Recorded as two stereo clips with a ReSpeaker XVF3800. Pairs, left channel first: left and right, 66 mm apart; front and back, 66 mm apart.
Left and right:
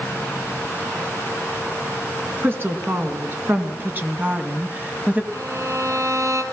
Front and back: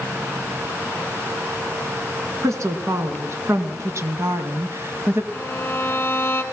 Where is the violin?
60° right, 2.5 m.